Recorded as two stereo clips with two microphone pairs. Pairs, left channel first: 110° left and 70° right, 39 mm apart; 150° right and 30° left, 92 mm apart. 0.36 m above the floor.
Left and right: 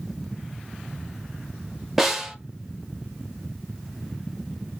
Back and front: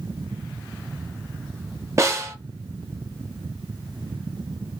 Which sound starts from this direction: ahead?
A snare drum, at 2.0 s.